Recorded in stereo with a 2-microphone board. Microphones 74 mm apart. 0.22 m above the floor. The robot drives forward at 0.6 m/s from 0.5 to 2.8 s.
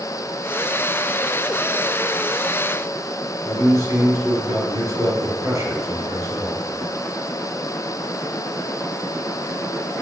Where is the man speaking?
40° right (ahead or behind), 3.5 m.